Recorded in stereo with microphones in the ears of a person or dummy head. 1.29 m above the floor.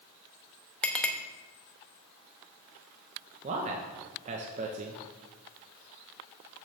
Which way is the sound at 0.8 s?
10° left (ahead or behind).